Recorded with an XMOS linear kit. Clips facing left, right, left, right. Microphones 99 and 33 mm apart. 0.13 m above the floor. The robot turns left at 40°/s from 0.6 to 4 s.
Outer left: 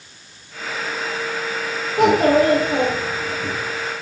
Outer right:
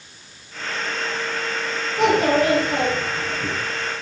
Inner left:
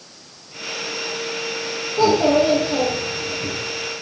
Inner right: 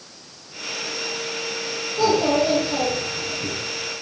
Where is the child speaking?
45° left, 2.5 m; by 3.5 s 15° right, 2.5 m.